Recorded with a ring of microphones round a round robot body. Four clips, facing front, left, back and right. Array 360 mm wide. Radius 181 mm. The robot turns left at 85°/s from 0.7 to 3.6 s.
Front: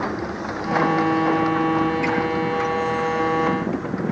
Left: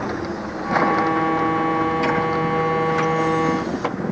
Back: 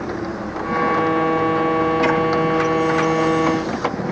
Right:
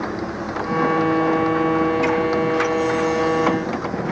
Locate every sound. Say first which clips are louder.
2.0 s a splash: right 1 dB, back 4 dB; 175° left, 9 m; by 2.2 s 160° left, 9 m